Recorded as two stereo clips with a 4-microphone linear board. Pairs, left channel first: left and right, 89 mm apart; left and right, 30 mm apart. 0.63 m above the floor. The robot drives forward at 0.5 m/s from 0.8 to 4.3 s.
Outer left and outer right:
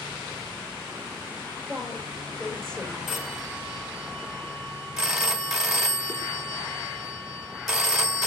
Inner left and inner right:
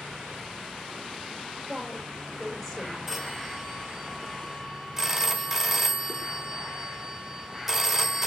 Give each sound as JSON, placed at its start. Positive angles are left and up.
{"t": 1.7, "sound": "a woman speaking", "side_deg": 10, "distance_m": 3.5}
{"t": 3.1, "sound": "a phone ringing", "side_deg": -5, "distance_m": 1.4}